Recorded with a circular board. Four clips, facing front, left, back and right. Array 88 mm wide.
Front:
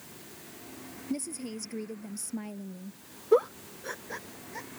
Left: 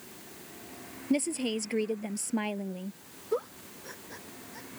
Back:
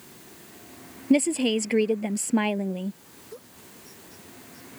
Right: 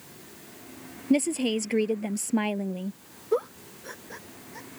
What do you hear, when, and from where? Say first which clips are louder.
1.1 s a woman speaking: right 5 dB, back 15 dB; 160° right
3.3 s a giggle: right 5 dB, front 22 dB; 15° right